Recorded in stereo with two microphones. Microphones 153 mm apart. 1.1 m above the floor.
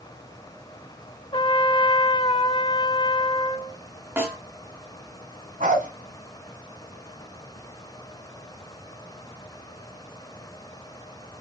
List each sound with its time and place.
1.3 s a trumpet: 35° left (ahead or behind), 0.9 m
4.2 s a snare drum: 15° right (ahead or behind), 2 m
5.6 s a dog barking: 60° right (ahead or behind), 3.5 m